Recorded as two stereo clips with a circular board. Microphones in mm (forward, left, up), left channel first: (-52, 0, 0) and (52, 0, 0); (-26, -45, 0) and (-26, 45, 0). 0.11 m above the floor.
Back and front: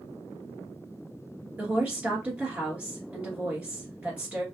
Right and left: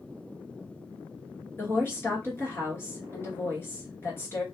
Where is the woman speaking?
65° right, 1.6 m.